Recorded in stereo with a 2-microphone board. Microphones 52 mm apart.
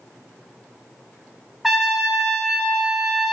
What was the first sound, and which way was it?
A trumpet, 5° right (ahead or behind).